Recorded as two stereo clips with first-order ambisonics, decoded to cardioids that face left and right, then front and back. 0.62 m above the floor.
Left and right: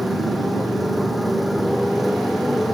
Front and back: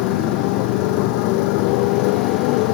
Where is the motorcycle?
Straight ahead.